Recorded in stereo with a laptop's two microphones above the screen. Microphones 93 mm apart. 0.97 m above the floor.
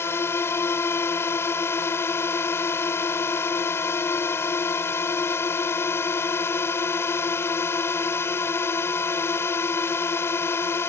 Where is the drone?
25° left (ahead or behind).